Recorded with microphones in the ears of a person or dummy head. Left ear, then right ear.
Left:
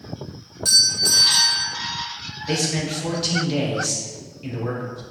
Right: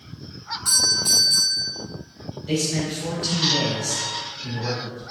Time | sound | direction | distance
0.7 | a doorbell | 30° left (ahead or behind) | 0.7 m
2.5 | a man speaking | 20° left (ahead or behind) | 1.0 m